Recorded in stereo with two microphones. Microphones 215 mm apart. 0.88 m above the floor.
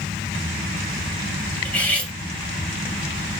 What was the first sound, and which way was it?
Cutlery clinking, 10° left (ahead or behind).